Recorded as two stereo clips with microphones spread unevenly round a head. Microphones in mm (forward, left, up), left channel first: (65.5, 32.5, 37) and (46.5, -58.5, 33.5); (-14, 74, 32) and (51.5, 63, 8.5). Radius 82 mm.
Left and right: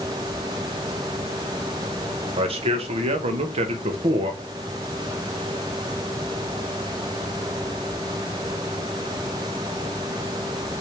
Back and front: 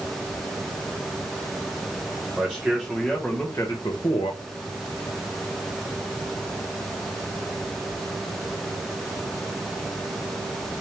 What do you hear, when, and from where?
2.4 s a man speaking: 90° right, 1.4 m; by 4.4 s 150° right, 0.7 m